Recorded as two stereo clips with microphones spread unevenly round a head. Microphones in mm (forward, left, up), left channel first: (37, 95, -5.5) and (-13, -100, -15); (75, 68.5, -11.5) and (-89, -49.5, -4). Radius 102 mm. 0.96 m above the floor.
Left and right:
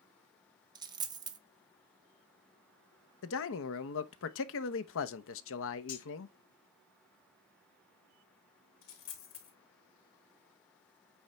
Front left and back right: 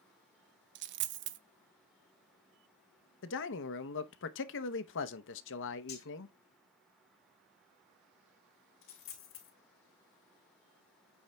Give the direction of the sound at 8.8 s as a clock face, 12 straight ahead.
10 o'clock.